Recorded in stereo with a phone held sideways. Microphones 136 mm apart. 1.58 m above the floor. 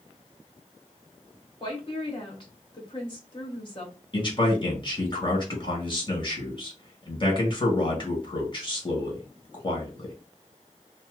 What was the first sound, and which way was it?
A woman speaking, 35° left (ahead or behind).